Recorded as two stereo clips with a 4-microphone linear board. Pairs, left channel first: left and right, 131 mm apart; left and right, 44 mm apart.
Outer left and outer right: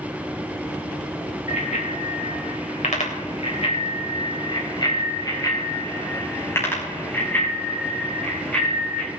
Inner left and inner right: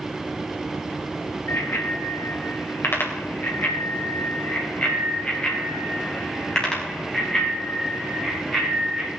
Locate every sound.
1.5 s a bicycle bell: 85° left, 4 m; by 9.1 s 5° left (ahead or behind), 8.5 m